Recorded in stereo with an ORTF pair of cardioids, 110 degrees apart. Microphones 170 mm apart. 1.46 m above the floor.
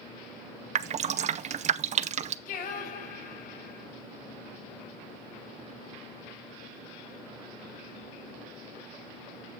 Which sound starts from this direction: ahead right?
Dripping, at 0.8 s.